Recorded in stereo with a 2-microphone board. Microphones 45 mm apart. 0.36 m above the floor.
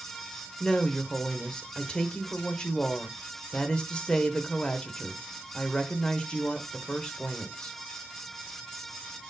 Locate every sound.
0.6 s a woman speaking: 20° left (ahead or behind), 1.0 m